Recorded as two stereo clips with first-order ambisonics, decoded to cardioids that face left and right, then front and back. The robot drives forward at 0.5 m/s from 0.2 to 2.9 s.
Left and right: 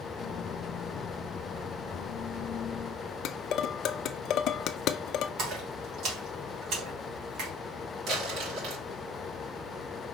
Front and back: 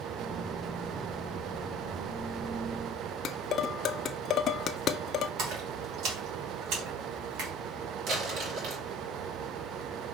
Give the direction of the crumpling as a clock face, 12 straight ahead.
5 o'clock.